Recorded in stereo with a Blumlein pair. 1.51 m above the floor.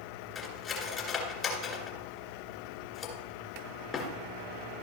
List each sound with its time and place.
0.3 s cutlery clinking: 25° left, 2 m